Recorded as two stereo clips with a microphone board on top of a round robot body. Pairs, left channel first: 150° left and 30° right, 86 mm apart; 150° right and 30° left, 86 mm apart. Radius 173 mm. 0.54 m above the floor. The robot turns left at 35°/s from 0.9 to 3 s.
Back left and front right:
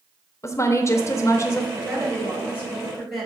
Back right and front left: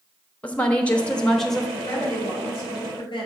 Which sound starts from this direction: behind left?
A woman speaking, at 0.4 s.